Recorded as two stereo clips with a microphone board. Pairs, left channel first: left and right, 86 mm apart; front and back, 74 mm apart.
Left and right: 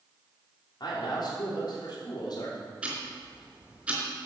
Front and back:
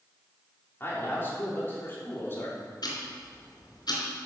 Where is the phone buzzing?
I don't hear a phone buzzing.